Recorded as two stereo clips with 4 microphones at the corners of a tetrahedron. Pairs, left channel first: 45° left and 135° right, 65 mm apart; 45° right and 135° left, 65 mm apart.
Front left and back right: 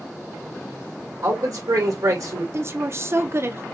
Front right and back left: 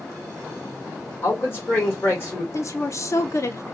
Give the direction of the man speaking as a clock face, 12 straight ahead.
3 o'clock.